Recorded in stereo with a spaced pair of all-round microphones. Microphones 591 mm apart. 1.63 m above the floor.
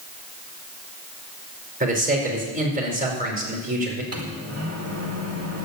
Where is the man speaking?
15° right (ahead or behind), 4.5 m.